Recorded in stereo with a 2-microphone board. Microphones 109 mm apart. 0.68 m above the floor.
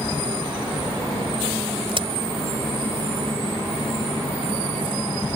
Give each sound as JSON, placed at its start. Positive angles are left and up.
{"t": 1.9, "sound": "a crack", "side_deg": -55}